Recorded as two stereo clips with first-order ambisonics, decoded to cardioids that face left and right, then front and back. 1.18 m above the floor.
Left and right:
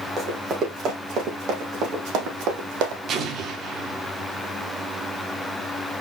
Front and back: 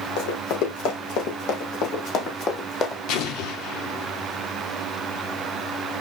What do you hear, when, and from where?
0.2 s running footsteps: 20° right, 4 m; by 3.0 s 65° right, 3.5 m
3.1 s an explosion: 30° right, 1.6 m